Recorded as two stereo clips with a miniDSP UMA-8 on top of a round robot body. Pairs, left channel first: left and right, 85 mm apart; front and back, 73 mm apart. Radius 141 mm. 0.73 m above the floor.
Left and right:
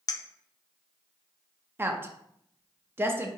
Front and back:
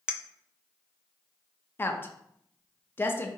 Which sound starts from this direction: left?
A clink, at 0.1 s.